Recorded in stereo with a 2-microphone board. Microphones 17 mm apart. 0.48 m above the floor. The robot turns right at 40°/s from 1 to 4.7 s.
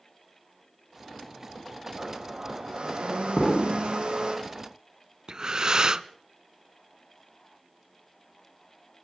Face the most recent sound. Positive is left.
turn(degrees=-45)  # may be behind; listen again after turning